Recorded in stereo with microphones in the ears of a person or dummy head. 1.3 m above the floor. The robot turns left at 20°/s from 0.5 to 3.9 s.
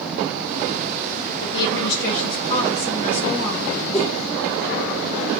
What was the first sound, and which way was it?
A woman speaking, 75° left.